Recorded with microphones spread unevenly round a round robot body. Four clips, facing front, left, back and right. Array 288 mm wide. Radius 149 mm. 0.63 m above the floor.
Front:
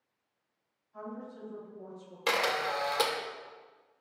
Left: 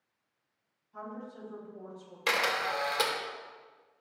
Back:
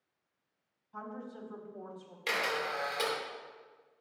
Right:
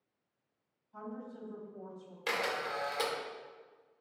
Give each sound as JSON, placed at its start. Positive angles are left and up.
{"t": 0.9, "sound": "a woman speaking", "azimuth_deg": 175, "distance_m": 3.5}
{"t": 2.3, "sound": "a camera shutter", "azimuth_deg": 30, "distance_m": 2.0}